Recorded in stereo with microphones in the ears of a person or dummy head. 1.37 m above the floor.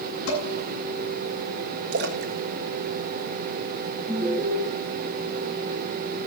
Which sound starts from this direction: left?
Dishes clattering, at 0.3 s.